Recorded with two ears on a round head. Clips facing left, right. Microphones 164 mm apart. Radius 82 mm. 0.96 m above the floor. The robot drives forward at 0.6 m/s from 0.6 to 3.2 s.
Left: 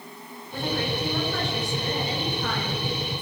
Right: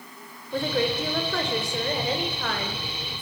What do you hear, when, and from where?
0.5 s a woman speaking: 65° right (ahead or behind), 4 m; by 3.2 s 50° right (ahead or behind), 5 m